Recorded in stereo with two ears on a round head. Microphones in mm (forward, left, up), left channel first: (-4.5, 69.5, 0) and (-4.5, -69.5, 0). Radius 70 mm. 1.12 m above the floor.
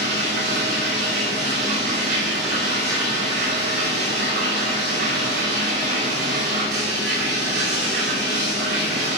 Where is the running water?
80° right, 5.5 m.